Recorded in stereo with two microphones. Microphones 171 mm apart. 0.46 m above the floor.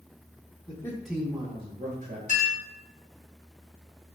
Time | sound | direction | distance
0.7 | a man speaking | 25° left (ahead or behind) | 0.8 m
2.3 | a clink | 45° left (ahead or behind) | 1.0 m